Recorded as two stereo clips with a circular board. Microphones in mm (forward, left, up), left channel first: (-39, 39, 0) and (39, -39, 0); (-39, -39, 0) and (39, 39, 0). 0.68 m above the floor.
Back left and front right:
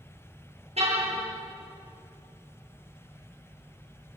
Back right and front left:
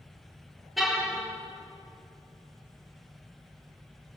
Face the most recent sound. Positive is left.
turn(degrees=-45)